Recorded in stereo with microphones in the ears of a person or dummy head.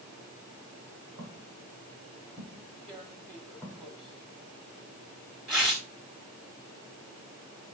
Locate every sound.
1.2 s footsteps: 20° right (ahead or behind), 7 m; by 3.9 s 15° right (ahead or behind), 4.5 m
2.9 s tearing paper: centre (ahead or behind), 1.6 m